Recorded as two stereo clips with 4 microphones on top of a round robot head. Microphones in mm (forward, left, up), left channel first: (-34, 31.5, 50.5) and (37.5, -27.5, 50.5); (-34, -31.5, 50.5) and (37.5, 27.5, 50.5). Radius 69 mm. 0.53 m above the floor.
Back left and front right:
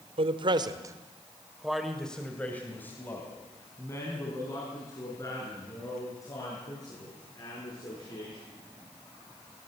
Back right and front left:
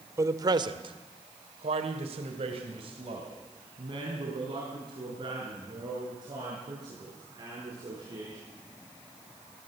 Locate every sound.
0.2 s a man speaking: 20° right, 1.6 m; by 8.4 s 90° left, 9.5 m